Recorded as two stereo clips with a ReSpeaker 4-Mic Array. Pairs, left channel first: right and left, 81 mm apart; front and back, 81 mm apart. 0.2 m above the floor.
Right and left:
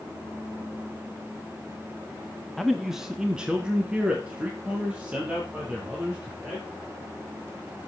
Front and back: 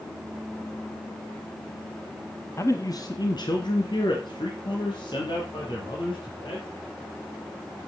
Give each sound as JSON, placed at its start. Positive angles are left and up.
{"t": 2.6, "sound": "a man speaking", "azimuth_deg": -5, "distance_m": 1.1}